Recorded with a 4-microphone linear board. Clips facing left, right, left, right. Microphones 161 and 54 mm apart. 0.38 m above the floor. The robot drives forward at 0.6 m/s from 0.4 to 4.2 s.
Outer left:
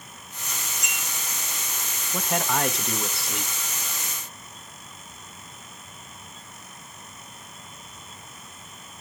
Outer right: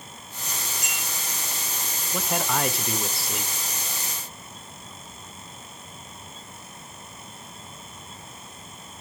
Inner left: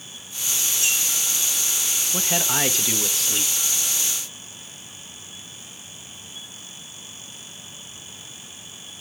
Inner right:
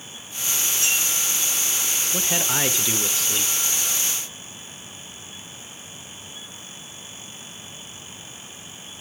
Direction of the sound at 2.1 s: 5° right (ahead or behind).